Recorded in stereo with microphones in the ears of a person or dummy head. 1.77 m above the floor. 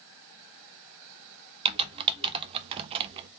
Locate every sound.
1.6 s typing on a keyboard: 30° right (ahead or behind), 0.5 m